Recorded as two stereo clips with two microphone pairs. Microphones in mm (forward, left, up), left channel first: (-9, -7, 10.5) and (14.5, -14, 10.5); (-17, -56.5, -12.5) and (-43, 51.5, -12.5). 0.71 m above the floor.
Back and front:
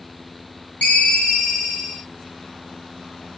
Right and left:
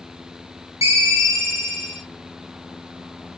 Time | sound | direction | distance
0.8 | a ringtone | 165° left | 1.3 m